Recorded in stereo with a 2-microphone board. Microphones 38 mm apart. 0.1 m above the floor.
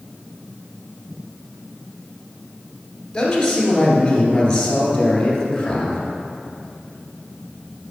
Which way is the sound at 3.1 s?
20° left (ahead or behind).